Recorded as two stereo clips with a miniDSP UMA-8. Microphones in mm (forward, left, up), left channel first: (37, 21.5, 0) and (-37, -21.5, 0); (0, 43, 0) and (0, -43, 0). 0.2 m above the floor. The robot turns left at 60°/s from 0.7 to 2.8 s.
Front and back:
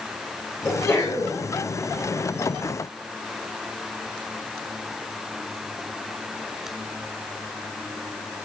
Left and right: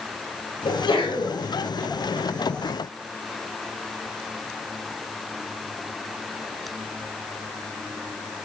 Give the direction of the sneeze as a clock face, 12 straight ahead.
9 o'clock.